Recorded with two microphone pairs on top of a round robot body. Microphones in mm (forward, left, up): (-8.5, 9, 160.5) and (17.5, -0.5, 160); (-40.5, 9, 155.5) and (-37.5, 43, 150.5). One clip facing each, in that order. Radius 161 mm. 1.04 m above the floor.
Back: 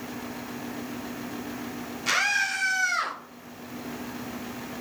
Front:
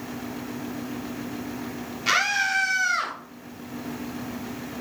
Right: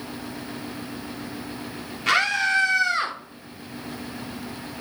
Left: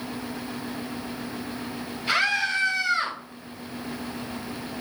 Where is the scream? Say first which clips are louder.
Front 2 dB, right 3 dB; 95° right, 3 m; by 3.2 s 100° right, 3.5 m.